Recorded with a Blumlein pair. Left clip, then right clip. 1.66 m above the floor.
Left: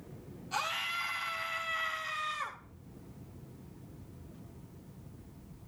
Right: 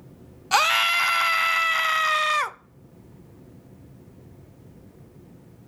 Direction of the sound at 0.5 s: 40° right.